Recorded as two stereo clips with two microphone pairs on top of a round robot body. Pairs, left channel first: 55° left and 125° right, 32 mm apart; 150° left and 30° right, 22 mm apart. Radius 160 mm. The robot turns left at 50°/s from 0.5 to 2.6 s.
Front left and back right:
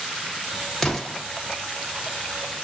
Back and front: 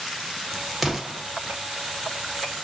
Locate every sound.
0.8 s an explosion: 25° left, 1.2 m; by 1.2 s 5° left, 1.2 m